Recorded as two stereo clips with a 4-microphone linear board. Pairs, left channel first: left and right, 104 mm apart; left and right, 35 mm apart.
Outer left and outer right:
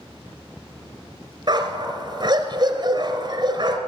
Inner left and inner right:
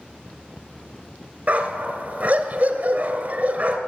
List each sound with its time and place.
1.5 s a dog barking: 45° right (ahead or behind), 1.2 m